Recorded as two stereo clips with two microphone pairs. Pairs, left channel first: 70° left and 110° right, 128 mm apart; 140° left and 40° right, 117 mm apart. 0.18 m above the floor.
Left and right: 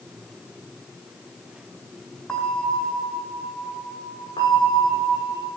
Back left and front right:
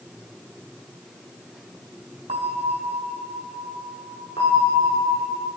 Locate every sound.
2.3 s a bell: 15° right, 5 m
4.4 s a bell: 115° left, 8 m